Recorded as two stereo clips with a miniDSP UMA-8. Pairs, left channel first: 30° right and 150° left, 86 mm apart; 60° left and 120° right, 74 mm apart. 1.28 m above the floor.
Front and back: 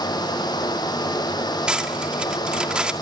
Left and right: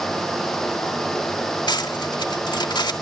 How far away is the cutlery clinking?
About 1.9 m.